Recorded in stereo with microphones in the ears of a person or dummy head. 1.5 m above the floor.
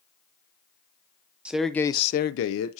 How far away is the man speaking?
About 0.7 m.